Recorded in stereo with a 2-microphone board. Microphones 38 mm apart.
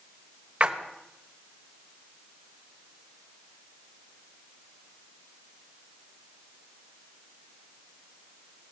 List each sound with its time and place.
0.6 s a splash: 35° right (ahead or behind), 1.4 m